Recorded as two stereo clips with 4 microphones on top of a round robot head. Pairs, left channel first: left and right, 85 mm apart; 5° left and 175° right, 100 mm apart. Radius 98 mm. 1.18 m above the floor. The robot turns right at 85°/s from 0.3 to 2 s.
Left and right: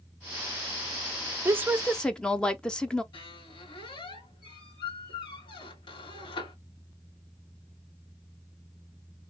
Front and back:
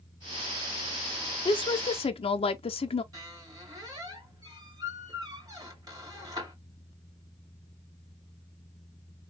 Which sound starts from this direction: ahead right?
A woman speaking, at 1.4 s.